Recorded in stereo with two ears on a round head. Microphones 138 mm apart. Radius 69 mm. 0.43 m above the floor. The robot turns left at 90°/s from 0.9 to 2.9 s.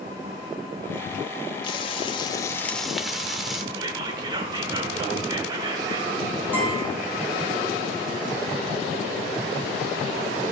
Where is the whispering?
25° right (ahead or behind), 1.0 m.